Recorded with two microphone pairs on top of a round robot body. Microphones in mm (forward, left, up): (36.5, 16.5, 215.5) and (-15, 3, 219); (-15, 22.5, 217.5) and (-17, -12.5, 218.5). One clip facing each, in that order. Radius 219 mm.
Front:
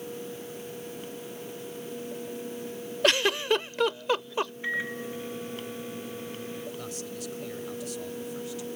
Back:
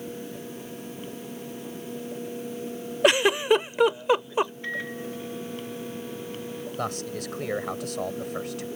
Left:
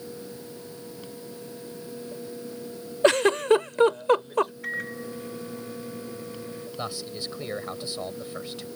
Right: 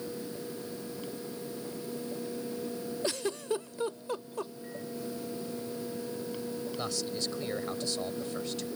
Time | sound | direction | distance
3.0 | a giggle | 120° left | ?
4.6 | a microwave | 95° left | ?
6.8 | a man speaking | 160° left | ?